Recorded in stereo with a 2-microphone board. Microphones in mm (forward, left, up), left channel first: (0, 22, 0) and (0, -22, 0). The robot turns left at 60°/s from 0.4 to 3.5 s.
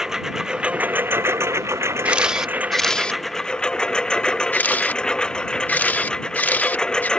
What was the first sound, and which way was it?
A lawn mower, 10° right.